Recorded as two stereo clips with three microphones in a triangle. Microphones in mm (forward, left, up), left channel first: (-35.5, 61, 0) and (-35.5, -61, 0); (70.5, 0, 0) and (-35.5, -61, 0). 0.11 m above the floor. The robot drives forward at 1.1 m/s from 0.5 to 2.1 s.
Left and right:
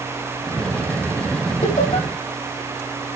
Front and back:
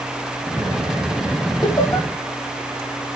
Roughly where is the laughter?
Left.